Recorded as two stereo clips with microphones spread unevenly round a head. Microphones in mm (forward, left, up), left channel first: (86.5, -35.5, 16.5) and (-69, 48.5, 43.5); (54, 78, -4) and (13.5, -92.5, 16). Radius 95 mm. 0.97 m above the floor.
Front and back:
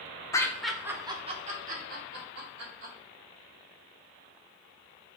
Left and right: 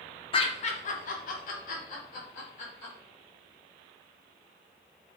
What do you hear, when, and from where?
0.3 s laughter: 30° left, 0.7 m; by 2.9 s 130° left, 1.4 m